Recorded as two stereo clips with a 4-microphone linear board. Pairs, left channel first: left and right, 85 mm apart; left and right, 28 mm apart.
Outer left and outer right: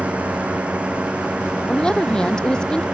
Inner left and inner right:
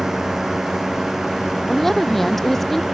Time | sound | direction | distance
0.0 | a drone | 15° right (ahead or behind) | ?
1.7 | a woman speaking | 10° left (ahead or behind) | ?